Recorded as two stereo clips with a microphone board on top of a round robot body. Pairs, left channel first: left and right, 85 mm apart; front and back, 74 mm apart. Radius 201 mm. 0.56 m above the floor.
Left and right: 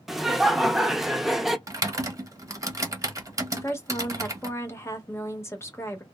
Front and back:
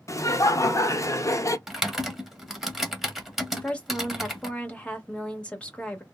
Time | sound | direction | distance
0.1 | laughter | 5° right | 0.9 m
1.7 | typing on a keyboard | 100° right | 1.1 m
3.5 | a woman speaking | 60° left | 1.2 m